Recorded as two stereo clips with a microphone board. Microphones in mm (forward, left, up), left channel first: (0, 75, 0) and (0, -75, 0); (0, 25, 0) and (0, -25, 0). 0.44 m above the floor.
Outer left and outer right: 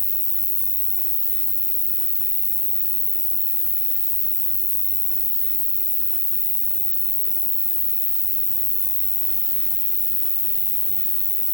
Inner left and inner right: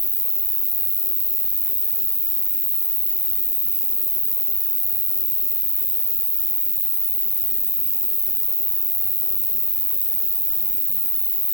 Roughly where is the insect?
Left.